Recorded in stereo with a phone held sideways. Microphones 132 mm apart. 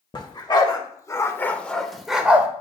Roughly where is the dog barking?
Left.